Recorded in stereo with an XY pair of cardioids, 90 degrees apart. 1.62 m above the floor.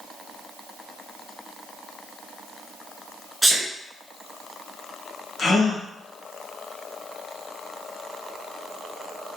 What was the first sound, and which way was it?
A sneeze, 10° right.